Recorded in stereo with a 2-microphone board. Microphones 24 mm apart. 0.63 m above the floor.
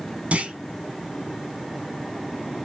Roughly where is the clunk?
Right.